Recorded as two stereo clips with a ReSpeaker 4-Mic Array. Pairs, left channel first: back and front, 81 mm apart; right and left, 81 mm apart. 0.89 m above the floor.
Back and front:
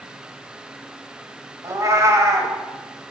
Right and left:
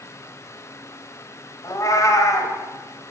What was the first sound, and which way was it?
A cat meowing, 45° right.